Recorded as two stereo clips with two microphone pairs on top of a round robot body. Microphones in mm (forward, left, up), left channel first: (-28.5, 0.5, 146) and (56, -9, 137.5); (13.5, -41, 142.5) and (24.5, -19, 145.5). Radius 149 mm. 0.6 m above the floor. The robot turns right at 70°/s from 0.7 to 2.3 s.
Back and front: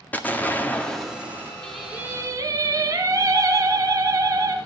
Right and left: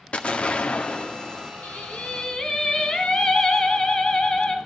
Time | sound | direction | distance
0.1 | an explosion | 115° right | 1.9 m
1.6 | singing | 105° right | 1.9 m